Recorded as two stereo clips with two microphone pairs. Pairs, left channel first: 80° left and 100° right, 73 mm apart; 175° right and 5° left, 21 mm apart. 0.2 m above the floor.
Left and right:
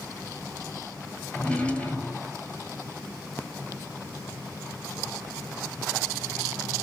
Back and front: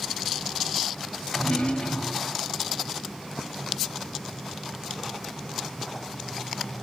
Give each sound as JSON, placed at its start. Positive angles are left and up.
{"t": 1.3, "sound": "a drawer", "azimuth_deg": 155, "distance_m": 1.0}